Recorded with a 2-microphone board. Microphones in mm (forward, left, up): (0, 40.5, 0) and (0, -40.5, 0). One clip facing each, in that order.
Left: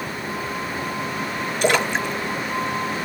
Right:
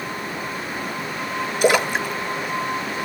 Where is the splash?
10° right (ahead or behind), 1.3 m.